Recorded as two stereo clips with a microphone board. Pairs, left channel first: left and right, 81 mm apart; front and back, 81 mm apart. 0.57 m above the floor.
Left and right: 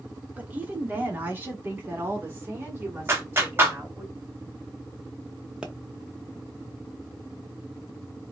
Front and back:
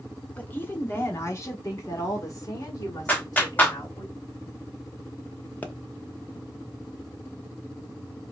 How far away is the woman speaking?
About 1.0 m.